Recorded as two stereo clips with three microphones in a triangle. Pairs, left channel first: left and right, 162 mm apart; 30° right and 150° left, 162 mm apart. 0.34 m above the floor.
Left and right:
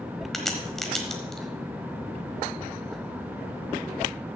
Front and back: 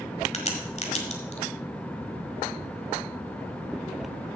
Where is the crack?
Straight ahead, 1.3 m.